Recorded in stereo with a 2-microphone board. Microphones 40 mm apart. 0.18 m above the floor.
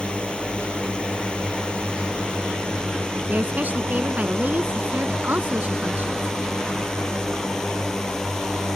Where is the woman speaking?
45° right (ahead or behind).